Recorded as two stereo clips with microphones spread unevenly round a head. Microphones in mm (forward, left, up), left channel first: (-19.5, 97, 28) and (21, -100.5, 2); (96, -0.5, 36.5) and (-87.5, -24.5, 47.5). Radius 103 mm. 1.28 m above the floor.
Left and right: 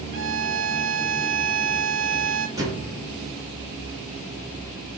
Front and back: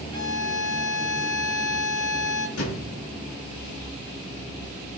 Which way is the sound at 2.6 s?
5° right.